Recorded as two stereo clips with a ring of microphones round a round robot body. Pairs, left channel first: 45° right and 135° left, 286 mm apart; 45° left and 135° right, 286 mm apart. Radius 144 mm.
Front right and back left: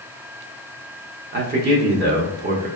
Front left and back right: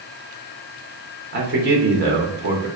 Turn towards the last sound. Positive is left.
turn(degrees=180)